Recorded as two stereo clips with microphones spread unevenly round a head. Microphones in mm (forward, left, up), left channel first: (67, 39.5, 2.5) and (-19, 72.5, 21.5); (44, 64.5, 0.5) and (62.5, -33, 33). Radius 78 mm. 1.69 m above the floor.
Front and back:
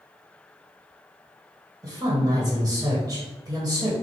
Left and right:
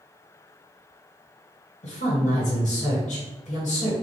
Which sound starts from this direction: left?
A woman speaking, at 1.8 s.